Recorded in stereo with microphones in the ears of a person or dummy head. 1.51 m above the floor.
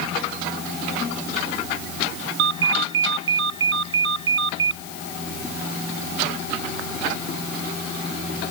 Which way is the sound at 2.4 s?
70° right (ahead or behind).